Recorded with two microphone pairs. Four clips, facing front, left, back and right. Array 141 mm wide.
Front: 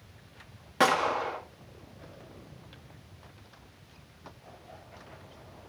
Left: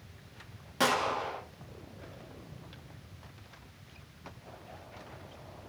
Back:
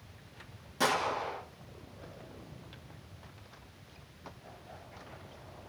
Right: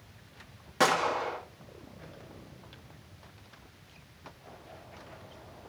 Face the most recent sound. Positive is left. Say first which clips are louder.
# right 3 dB, front 5 dB
turn(degrees=-15)